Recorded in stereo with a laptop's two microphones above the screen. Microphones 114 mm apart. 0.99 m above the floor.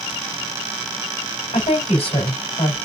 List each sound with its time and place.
1.5 s a woman speaking: 60° left (ahead or behind), 3.5 m